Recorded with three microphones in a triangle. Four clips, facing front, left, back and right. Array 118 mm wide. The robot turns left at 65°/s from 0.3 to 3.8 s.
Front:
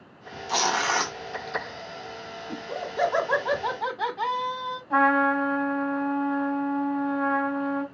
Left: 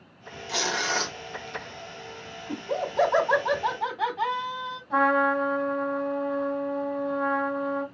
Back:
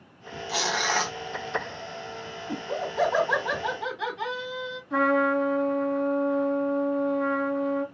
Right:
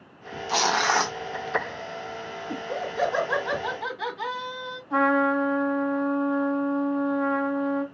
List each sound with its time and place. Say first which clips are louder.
0.5 s tearing paper: right 6 dB, front 3 dB; 55° right, 0.8 m; by 1.2 s 100° right, 0.8 m
2.5 s laughter: left 2 dB, back 3 dB; 130° left, 3 m; by 4.8 s 45° left, 3 m
4.9 s a trumpet: right 1 dB, front 1 dB; 15° left, 2.5 m